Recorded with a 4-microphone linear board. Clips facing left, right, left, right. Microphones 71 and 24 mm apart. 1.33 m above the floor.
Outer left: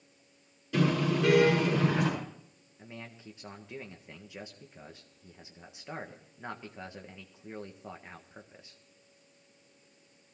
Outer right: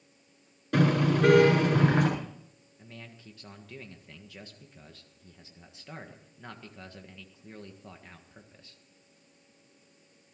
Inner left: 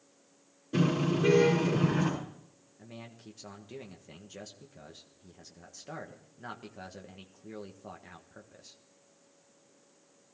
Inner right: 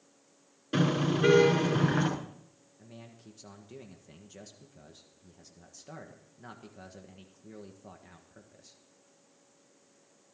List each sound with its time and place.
0.7 s a car horn: 55° right (ahead or behind), 10 m
2.8 s a man speaking: 20° left (ahead or behind), 1.4 m